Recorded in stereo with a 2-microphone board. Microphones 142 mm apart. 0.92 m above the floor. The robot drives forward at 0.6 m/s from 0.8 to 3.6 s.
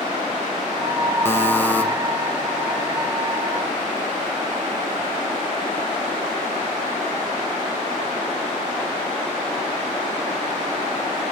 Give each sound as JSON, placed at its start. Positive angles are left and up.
{"t": 1.2, "sound": "a buzzer", "side_deg": 15, "distance_m": 0.8}